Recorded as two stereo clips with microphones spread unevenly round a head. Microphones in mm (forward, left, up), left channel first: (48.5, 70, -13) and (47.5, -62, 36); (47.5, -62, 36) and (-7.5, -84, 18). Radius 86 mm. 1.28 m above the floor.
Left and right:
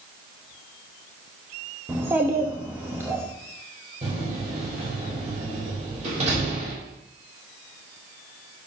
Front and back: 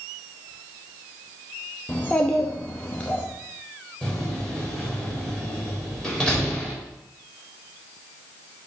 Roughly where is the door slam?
Ahead right.